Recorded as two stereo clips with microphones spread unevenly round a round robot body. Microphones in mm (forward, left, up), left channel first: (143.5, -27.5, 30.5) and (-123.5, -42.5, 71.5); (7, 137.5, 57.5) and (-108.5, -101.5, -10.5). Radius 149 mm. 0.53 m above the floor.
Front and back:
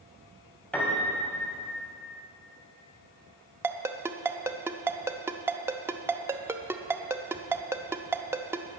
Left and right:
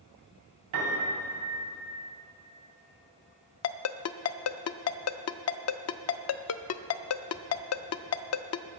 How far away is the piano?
About 3 m.